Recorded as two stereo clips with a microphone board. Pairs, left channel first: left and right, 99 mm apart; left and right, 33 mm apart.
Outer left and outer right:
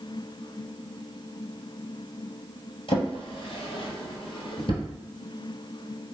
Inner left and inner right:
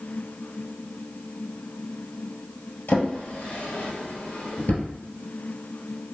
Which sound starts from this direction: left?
A drawer, at 2.9 s.